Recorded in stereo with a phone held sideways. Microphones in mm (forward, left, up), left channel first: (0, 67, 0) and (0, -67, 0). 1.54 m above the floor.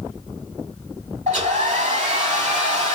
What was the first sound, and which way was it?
A hair dryer, 60° right (ahead or behind).